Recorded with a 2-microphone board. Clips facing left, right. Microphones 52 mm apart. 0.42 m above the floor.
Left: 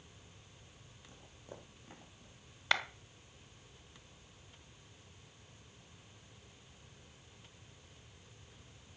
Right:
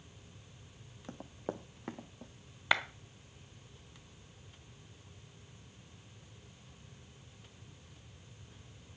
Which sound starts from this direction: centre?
A clap, at 2.7 s.